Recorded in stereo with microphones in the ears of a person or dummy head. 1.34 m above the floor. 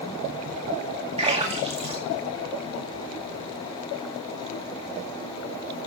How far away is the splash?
About 2 m.